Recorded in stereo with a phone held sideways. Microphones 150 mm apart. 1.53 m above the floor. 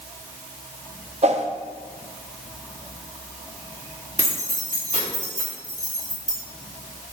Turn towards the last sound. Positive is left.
turn(degrees=55)  # may be behind; listen again after turning